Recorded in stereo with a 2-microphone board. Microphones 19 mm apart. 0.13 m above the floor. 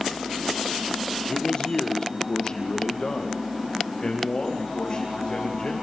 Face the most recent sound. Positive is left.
turn(degrees=40)  # may be behind; listen again after turning